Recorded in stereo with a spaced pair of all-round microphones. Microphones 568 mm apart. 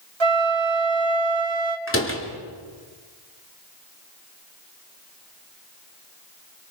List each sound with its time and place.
0.2 s a flute: 50° right (ahead or behind), 1.9 m
1.9 s a door slam: 20° left (ahead or behind), 3 m